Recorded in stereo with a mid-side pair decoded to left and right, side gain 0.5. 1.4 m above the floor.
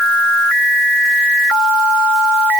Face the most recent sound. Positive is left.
No sound to turn to.